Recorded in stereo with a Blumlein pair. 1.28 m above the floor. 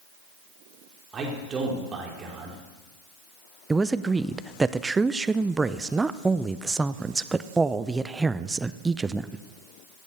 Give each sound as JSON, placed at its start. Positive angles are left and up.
{"t": 1.1, "sound": "a man speaking", "azimuth_deg": -20, "distance_m": 3.5}
{"t": 3.7, "sound": "a man speaking", "azimuth_deg": -10, "distance_m": 0.5}